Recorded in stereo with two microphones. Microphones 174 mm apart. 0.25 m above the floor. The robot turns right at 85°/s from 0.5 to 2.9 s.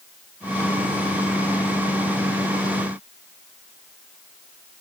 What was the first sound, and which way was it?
Only background noise.